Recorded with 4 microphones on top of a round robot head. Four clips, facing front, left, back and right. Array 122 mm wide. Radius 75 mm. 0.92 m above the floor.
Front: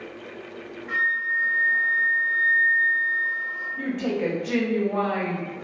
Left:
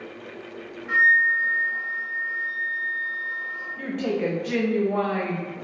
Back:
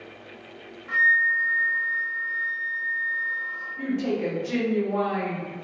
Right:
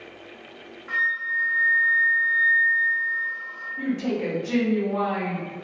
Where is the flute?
120° right, 1.1 m.